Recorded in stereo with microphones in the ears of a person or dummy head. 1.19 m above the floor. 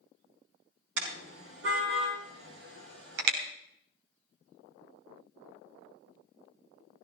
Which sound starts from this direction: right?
A car horn, at 1.0 s.